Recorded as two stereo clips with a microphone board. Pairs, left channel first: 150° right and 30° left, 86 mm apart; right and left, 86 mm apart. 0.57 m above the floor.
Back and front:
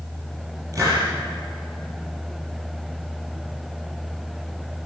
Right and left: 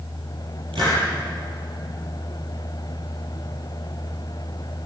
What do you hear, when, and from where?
0.7 s a hiss: 80° left, 10 m